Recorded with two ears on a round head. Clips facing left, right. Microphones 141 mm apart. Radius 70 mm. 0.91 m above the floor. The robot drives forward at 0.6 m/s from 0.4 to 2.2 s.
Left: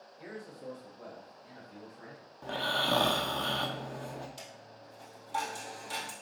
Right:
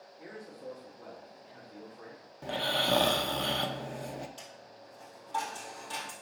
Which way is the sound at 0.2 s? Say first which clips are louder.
Left 1 dB; 75° left (ahead or behind).